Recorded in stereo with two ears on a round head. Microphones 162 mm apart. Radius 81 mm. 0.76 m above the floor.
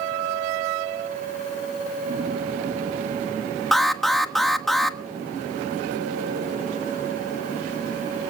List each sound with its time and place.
3.7 s an alarm: centre (ahead or behind), 1.3 m